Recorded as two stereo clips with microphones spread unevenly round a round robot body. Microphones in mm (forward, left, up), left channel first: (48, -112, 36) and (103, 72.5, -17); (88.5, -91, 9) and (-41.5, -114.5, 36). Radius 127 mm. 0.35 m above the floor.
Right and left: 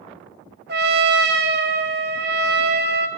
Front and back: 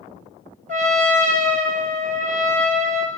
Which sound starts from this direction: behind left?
A trumpet, at 0.7 s.